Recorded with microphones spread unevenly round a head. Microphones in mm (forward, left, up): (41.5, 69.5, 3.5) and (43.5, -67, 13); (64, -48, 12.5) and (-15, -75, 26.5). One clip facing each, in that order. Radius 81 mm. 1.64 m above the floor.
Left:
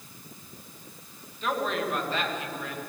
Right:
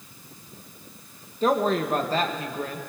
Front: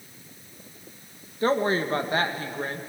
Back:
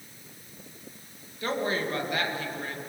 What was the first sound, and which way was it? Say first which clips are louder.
A woman speaking: right 7 dB, front 6 dB; 35° right.